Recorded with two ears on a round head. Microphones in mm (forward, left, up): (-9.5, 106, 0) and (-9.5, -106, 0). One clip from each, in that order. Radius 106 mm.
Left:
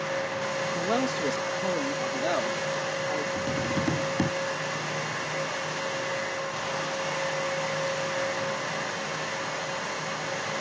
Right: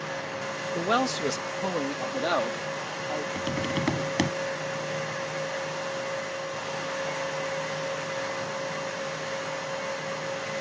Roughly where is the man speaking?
Right.